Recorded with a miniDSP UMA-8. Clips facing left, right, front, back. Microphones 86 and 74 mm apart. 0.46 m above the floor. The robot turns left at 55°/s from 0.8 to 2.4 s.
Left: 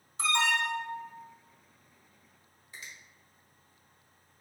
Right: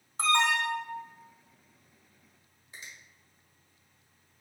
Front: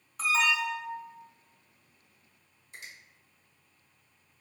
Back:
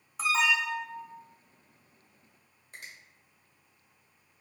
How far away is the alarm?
About 0.9 m.